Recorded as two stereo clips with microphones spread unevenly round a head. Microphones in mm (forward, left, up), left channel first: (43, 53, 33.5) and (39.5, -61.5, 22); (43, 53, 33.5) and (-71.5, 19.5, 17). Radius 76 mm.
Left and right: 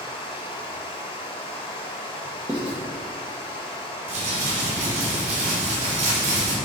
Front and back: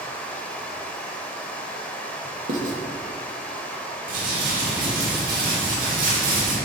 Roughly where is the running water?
Left.